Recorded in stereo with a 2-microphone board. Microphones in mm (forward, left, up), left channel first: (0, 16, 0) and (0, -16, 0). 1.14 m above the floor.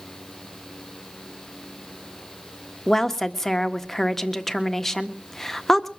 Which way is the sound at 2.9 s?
10° left (ahead or behind).